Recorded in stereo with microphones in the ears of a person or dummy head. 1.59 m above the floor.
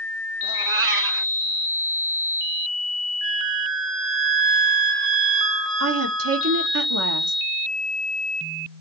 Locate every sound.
0.4 s a cat meowing: 70° right (ahead or behind), 3 m
3.2 s a flute: 5° right (ahead or behind), 0.8 m
5.8 s a woman speaking: 80° right, 1.8 m